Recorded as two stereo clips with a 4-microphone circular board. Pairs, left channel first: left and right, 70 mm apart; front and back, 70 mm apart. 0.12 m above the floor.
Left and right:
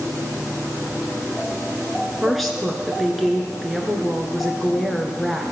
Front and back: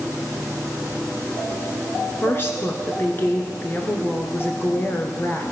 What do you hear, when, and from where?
2.2 s a woman speaking: straight ahead, 1.3 m